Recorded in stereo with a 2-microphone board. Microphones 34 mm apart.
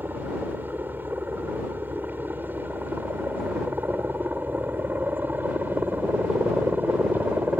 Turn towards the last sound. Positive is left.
turn(degrees=-70)  # may be behind; listen again after turning